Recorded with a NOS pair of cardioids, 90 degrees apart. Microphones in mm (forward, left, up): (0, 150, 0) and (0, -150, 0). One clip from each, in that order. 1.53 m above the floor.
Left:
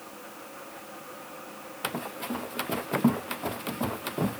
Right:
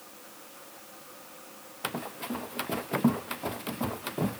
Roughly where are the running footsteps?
Ahead.